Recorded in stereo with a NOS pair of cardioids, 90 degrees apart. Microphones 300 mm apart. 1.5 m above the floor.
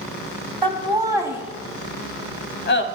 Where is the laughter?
15° right, 1.5 m; by 2.9 s 40° left, 0.7 m.